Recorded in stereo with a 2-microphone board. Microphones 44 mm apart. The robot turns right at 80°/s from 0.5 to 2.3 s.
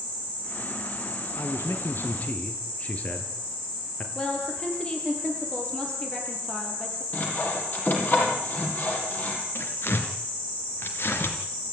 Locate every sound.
1.4 s a man speaking: 75° left, 3.5 m; by 4.0 s 150° left, 3.5 m
4.2 s a woman speaking: 20° left (ahead or behind), 6.5 m
7.1 s sawing: 45° left (ahead or behind), 6 m
9.6 s tearing paper: 60° left (ahead or behind), 3 m